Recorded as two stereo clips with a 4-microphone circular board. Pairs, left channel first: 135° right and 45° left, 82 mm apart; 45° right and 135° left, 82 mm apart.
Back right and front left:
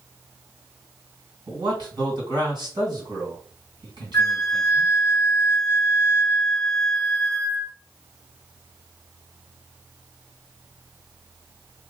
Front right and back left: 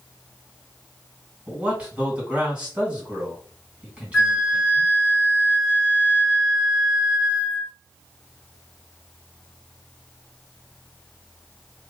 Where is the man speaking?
60° left, 2.5 m.